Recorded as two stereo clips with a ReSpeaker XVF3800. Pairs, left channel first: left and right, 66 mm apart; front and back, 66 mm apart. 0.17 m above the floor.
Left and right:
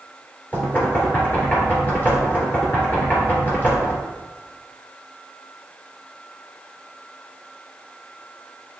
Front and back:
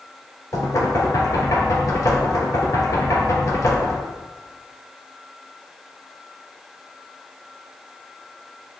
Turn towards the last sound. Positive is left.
turn(degrees=30)